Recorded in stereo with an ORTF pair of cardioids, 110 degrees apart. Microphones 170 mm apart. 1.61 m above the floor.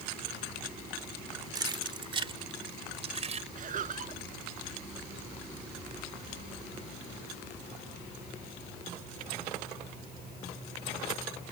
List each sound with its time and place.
1.6 s keys jangling: 25° right; by 3.5 s 40° right
3.5 s laughter: 50° right